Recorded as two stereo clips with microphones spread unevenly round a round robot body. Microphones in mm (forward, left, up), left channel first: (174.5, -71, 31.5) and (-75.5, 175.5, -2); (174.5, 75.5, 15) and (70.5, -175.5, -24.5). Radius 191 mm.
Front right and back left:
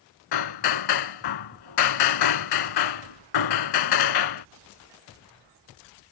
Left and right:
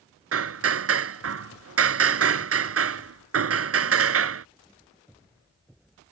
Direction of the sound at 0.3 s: 80° right.